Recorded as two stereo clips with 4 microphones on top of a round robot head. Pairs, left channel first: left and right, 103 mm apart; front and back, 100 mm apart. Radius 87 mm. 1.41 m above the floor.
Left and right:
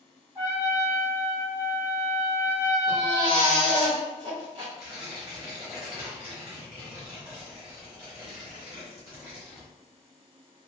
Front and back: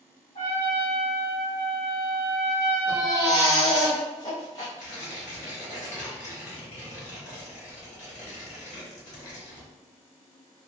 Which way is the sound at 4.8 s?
15° right.